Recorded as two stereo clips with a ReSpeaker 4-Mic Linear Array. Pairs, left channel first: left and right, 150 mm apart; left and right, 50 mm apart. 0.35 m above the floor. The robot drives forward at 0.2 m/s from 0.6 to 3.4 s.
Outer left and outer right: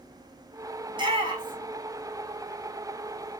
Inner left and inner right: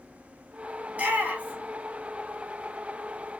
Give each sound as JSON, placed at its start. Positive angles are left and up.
{"t": 0.9, "sound": "a shout", "side_deg": -35, "distance_m": 2.0}